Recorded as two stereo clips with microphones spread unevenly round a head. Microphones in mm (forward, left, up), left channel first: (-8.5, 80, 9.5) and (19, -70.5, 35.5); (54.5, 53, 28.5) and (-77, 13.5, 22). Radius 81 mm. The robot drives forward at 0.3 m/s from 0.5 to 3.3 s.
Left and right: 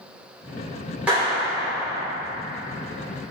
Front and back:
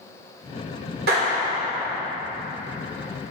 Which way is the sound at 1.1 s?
160° right.